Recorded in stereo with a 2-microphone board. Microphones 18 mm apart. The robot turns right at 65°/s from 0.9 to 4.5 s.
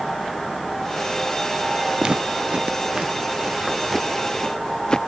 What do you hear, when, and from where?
2.0 s footsteps: 60° right (ahead or behind); by 5.0 s 50° left (ahead or behind)